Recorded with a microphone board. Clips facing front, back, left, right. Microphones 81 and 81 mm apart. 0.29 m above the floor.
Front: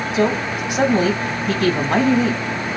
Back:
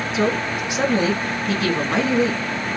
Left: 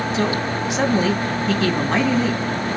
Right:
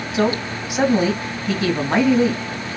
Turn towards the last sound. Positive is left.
turn(degrees=-15)